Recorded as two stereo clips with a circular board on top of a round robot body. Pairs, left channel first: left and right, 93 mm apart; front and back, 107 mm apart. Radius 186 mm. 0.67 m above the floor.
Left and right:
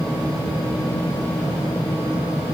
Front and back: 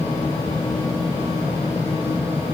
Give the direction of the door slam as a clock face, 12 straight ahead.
I don't hear a door slam.